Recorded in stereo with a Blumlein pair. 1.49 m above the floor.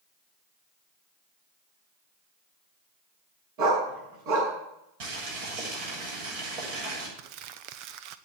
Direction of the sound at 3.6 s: 45° right.